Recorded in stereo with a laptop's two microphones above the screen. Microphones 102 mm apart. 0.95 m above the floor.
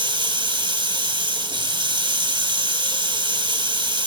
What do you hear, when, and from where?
0.0 s running water: 50° right (ahead or behind), 1.9 m